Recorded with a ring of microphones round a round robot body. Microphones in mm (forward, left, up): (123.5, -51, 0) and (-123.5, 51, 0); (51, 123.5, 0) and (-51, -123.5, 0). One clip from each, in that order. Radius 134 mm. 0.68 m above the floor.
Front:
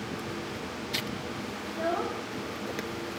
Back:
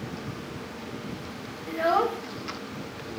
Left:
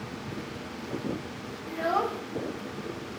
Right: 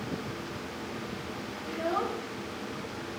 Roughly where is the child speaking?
Behind left.